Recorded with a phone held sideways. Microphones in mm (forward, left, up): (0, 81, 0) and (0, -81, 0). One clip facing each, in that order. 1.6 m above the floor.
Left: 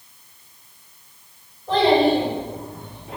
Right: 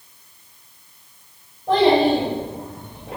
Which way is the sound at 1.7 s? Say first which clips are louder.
Right 1 dB; 55° right (ahead or behind).